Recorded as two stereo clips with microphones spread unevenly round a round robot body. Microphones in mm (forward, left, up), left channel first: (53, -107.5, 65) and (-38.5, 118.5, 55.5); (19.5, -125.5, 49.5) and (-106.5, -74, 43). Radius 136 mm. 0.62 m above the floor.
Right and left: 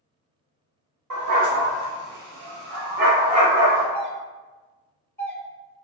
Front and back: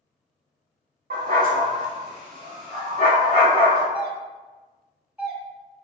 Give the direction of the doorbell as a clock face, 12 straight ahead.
5 o'clock.